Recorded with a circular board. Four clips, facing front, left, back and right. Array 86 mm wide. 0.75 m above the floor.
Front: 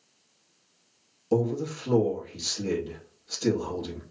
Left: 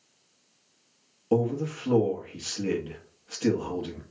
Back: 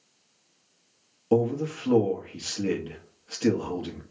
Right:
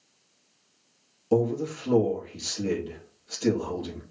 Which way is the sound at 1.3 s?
155° left.